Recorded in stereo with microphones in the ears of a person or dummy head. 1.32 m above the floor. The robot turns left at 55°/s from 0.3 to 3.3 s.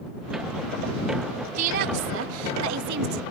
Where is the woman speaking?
40° right; by 3.2 s 130° right.